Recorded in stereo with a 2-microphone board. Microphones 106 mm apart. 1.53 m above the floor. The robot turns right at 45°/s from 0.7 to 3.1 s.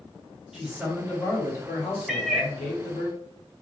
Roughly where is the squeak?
No squeak in this recording.